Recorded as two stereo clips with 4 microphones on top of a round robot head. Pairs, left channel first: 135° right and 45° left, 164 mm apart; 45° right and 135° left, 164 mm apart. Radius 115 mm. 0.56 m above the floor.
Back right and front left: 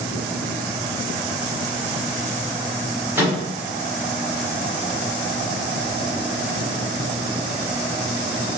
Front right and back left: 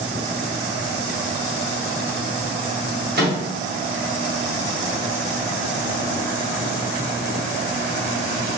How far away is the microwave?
About 1.7 m.